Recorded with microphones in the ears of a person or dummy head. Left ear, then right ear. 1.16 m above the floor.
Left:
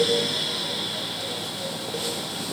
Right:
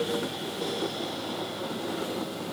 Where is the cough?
I don't hear a cough.